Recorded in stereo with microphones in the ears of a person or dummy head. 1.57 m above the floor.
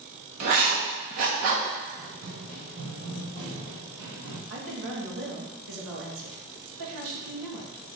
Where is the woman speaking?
80° right, 2 m.